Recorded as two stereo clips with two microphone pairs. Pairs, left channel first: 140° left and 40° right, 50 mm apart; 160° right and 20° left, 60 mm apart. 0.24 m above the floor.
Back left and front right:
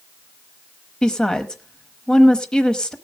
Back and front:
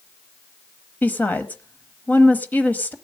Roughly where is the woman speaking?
Behind.